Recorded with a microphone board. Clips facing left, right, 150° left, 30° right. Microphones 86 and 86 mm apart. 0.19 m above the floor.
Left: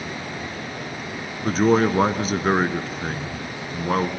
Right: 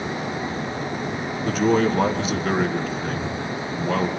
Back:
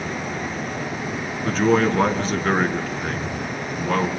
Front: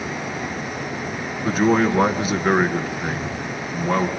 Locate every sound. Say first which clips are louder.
1.4 s a man speaking: left 2 dB, front 1 dB; 50° left, 1.8 m